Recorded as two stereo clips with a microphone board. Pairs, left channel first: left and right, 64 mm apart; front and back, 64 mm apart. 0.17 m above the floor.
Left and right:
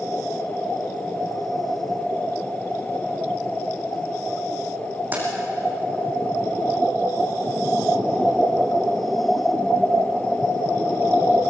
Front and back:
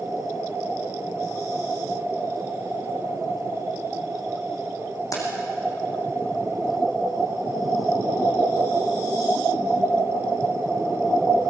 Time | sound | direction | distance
5.1 | keys jangling | 25° right | 6.5 m